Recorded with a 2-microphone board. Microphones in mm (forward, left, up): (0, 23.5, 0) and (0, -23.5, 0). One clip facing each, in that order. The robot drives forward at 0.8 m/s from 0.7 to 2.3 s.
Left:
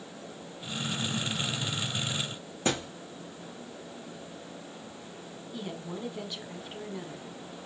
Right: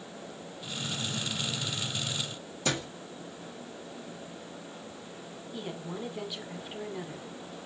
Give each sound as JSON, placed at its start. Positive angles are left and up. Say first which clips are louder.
{"t": 2.6, "sound": "a thud", "louder": "left 2 dB", "side_deg": 30, "distance_m": 3.5}
{"t": 5.5, "sound": "a woman speaking", "louder": "even", "side_deg": -10, "distance_m": 1.1}